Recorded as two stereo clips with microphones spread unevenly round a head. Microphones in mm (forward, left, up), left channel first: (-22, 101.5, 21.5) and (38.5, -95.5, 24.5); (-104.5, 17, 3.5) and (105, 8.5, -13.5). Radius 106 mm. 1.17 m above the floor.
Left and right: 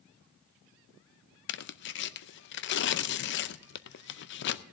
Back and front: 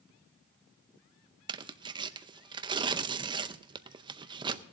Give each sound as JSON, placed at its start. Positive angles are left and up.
{"t": 1.5, "sound": "tearing paper", "azimuth_deg": 70, "distance_m": 0.5}